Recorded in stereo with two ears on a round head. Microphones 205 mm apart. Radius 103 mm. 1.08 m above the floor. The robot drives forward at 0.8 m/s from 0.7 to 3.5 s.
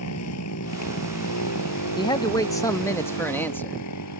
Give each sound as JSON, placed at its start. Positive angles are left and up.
{"t": 0.0, "sound": "a motorcycle", "side_deg": 75}
{"t": 2.0, "sound": "a man speaking", "side_deg": 20}